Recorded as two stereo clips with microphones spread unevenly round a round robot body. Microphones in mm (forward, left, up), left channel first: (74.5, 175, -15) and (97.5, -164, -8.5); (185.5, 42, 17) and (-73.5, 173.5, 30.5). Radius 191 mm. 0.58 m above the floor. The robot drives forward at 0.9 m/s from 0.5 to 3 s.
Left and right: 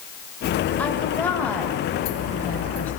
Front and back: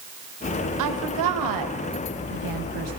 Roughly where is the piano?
I don't hear a piano.